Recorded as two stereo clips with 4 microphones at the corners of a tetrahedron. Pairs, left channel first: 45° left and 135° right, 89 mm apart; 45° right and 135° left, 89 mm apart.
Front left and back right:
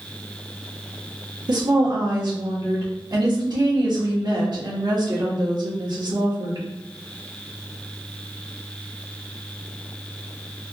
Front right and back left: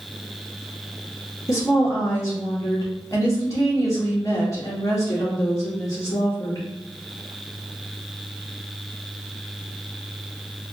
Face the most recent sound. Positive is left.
turn(degrees=-95)